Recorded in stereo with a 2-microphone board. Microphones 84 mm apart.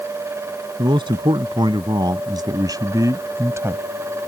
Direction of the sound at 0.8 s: 65° right (ahead or behind).